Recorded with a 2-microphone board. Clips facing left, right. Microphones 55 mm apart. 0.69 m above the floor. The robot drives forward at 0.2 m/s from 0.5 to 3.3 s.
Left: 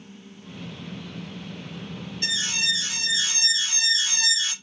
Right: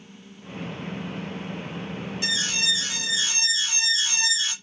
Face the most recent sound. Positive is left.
turn(degrees=-10)  # may be behind; listen again after turning